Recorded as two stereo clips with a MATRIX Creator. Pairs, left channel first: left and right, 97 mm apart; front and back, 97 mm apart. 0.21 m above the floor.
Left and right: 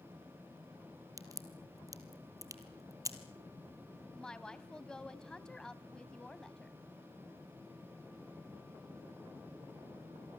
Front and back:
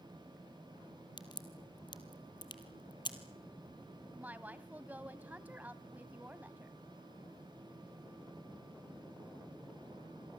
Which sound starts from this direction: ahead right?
A crack, at 1.2 s.